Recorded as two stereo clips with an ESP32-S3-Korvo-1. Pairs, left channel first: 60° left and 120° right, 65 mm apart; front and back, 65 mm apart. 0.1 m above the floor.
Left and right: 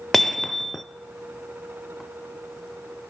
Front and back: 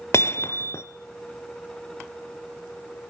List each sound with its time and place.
0.1 s hammering: 25° right, 1.1 m